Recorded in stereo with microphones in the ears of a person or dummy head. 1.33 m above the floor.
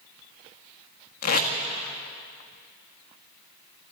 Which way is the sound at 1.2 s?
55° left (ahead or behind).